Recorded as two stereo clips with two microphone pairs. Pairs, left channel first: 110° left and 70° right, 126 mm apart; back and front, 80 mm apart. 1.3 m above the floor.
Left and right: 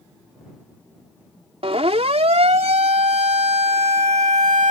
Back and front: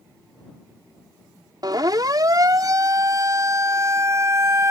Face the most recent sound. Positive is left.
turn(degrees=-55)